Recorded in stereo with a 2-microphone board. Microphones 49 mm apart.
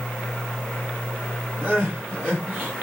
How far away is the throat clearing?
I don't hear throat clearing.